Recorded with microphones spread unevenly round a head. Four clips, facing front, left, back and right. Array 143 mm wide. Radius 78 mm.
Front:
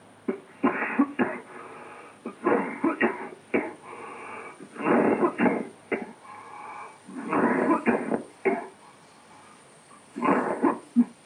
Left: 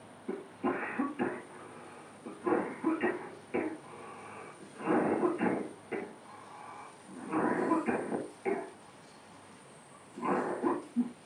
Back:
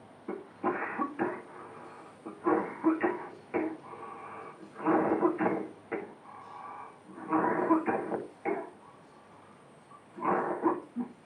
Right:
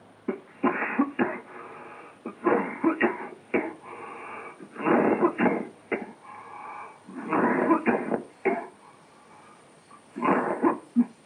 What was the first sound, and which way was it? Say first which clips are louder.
A cough: right 7 dB, front 7 dB; 40° right.